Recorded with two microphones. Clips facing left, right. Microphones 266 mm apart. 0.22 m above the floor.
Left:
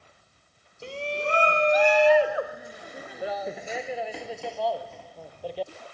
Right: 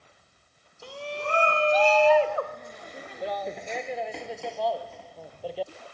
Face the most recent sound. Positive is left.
turn(degrees=0)  # may be behind; listen again after turning